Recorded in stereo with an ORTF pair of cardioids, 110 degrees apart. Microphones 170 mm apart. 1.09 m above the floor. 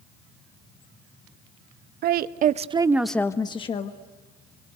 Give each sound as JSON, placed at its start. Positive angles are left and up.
{"t": 2.0, "sound": "a woman speaking", "azimuth_deg": -70, "distance_m": 1.0}